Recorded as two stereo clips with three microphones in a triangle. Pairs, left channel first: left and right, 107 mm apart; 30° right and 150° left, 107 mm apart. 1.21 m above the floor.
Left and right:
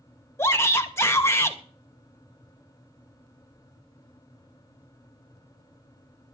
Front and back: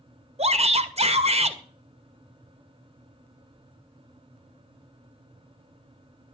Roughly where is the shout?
Behind left.